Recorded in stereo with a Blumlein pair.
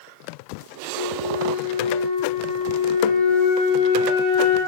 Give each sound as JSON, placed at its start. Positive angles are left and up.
{"t": 0.9, "sound": "a flute", "azimuth_deg": 40, "distance_m": 1.8}